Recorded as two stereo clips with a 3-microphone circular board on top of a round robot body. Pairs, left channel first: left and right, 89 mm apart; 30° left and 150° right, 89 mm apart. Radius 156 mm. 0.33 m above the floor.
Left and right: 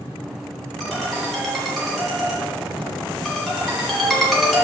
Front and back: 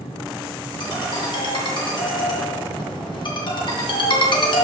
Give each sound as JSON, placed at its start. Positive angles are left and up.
{"t": 0.8, "sound": "a ringtone", "azimuth_deg": 0, "distance_m": 2.5}